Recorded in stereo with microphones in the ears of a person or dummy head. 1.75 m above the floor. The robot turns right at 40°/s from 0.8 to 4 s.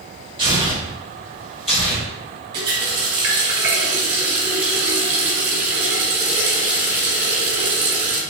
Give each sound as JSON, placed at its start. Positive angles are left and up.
{"t": 0.4, "sound": "tearing paper", "side_deg": -40, "distance_m": 1.8}
{"t": 2.5, "sound": "a running tap", "side_deg": -20, "distance_m": 0.7}